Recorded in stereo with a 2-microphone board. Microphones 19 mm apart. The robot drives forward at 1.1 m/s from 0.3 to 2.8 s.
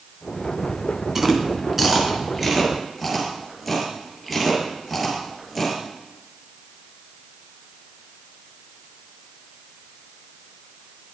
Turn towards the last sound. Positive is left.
turn(degrees=-5)  # may be behind; listen again after turning